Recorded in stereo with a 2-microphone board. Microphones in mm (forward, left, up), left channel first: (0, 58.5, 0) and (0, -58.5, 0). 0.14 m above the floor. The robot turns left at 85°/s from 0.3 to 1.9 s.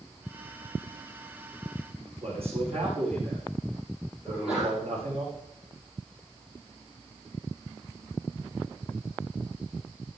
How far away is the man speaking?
About 8 m.